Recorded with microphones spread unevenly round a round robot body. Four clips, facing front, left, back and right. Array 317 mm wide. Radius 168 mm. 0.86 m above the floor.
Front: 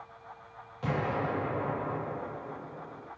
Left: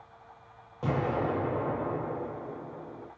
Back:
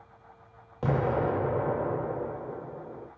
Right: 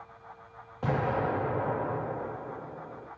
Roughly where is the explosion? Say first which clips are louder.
Even, back 4 dB; behind.